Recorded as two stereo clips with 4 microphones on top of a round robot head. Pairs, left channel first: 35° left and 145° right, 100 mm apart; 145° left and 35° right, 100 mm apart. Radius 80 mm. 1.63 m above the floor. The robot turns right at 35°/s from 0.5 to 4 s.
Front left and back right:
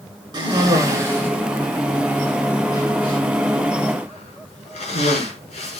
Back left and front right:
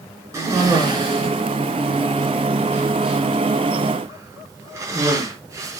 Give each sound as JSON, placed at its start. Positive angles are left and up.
{"t": 0.3, "sound": "a cough", "azimuth_deg": -95, "distance_m": 6.0}